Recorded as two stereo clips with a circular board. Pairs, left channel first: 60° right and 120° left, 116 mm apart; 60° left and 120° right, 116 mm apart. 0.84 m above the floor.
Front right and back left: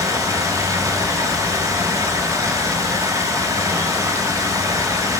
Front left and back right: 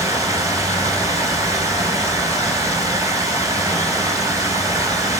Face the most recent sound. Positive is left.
turn(degrees=180)